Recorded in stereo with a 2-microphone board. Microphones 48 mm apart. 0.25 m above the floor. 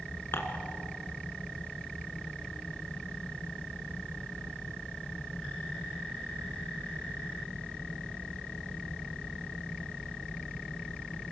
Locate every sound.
0.3 s dishes clattering: 60° left (ahead or behind), 1.8 m